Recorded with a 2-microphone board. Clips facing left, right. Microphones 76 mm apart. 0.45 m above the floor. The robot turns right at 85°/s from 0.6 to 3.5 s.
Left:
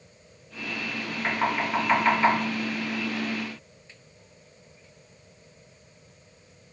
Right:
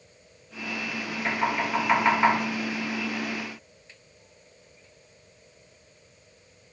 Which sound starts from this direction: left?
Knocking, at 1.2 s.